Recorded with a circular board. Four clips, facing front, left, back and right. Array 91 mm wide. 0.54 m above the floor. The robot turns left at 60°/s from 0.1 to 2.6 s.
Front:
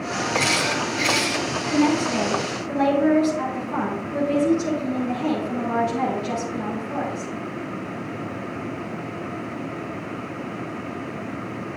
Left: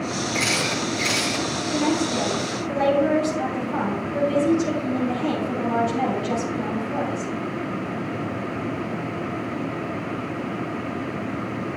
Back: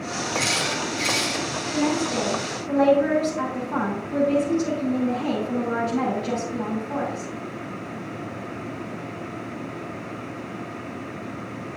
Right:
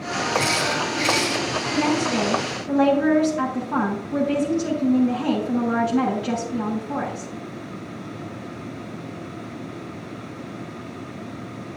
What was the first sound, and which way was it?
A camera shutter, 10° left.